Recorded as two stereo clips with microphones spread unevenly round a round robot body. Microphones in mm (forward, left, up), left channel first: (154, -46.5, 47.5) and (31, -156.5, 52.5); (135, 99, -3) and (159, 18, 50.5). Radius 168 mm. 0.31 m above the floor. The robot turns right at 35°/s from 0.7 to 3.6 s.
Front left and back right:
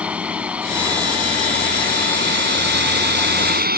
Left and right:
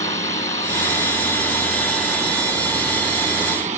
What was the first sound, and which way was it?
A drone, 135° left.